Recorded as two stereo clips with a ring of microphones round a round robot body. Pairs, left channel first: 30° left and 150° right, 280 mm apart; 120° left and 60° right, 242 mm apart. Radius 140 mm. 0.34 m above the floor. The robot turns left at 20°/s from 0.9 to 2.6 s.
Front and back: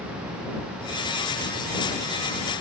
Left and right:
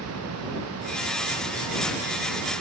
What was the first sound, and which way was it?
Only background noise.